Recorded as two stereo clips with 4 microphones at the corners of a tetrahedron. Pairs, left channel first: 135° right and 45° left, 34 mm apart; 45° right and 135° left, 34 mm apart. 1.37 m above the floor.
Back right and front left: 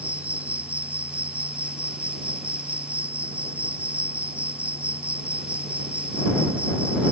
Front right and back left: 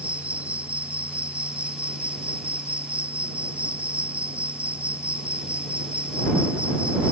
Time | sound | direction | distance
0.0 | an insect | 90° left | ?